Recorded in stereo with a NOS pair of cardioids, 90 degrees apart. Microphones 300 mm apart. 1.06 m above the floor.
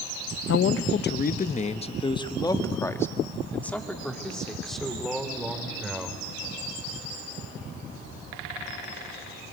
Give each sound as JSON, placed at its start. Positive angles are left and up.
{"t": 0.5, "sound": "a man speaking", "azimuth_deg": 60, "distance_m": 0.8}